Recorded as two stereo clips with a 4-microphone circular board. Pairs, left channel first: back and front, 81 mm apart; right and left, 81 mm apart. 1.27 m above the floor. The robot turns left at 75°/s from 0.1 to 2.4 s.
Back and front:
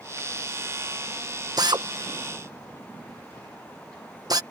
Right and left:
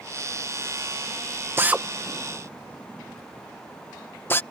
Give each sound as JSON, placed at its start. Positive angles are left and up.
{"t": 1.6, "sound": "a drill", "azimuth_deg": 30}